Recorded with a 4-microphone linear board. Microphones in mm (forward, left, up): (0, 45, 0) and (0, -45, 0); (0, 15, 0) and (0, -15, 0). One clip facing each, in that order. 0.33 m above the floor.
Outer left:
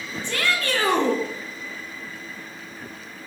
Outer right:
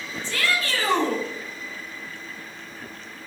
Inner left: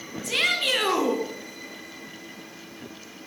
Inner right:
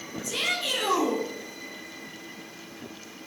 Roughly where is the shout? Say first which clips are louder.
Outer left 1 dB, inner left 5 dB; left.